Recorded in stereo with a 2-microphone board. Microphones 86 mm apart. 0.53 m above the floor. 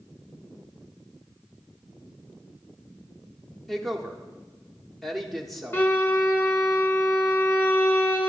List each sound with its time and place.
3.7 s a woman speaking: centre (ahead or behind), 0.9 m
5.7 s a violin: 25° left (ahead or behind), 0.9 m